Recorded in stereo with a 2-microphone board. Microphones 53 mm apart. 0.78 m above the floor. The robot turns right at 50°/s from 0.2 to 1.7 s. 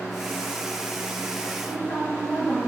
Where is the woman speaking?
Centre (ahead or behind), 1.4 m; by 2.6 s 5° left (ahead or behind), 1.4 m.